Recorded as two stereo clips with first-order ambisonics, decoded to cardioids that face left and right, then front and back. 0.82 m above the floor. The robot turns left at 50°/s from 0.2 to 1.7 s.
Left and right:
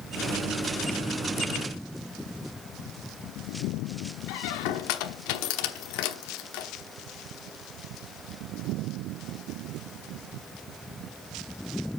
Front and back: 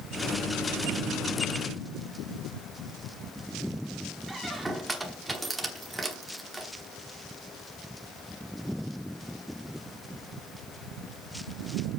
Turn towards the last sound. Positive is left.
turn(degrees=95)